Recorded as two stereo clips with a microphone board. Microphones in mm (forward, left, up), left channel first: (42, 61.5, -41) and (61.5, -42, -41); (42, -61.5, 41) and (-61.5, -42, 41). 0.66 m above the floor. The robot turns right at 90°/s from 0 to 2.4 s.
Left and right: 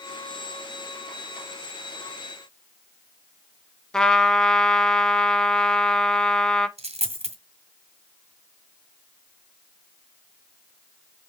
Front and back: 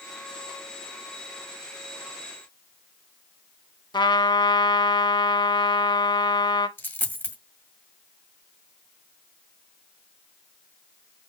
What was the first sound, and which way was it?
A trumpet, 20° left.